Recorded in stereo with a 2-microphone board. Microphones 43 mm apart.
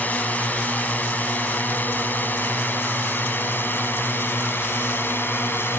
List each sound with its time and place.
0.0 s a drone: 35° left (ahead or behind); by 5.8 s 55° left (ahead or behind)